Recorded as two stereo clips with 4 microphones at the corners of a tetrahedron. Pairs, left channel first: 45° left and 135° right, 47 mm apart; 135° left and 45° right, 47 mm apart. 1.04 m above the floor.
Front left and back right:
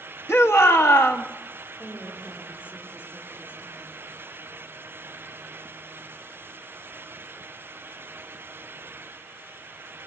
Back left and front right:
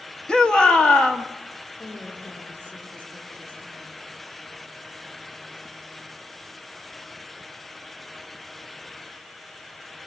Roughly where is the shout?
Ahead left.